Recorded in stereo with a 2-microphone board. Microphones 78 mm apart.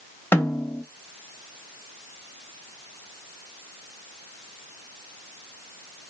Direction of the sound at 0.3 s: 25° left (ahead or behind).